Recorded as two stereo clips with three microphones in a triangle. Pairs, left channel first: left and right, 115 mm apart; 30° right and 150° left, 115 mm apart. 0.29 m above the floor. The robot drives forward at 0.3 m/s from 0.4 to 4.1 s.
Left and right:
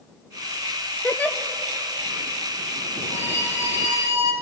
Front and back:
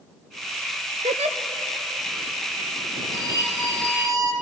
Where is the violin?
155° right, 7.5 m; by 4.3 s 160° right, 7.5 m.